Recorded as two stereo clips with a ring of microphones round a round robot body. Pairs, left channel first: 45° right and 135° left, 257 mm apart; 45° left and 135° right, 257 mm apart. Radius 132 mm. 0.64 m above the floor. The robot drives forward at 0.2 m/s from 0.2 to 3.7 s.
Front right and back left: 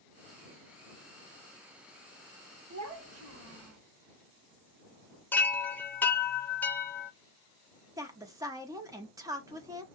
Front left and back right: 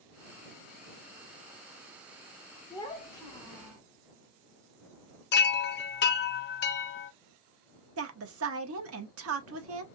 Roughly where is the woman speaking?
Behind right.